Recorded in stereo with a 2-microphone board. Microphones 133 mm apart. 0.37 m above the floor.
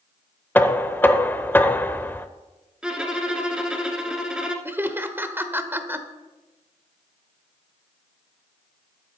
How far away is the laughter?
About 0.9 m.